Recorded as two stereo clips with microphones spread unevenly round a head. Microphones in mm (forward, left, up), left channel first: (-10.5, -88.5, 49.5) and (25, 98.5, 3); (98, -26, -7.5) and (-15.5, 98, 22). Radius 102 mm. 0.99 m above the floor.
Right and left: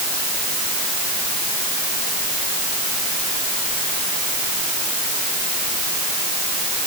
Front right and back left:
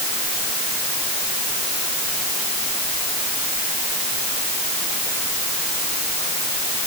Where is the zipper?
I don't hear a zipper.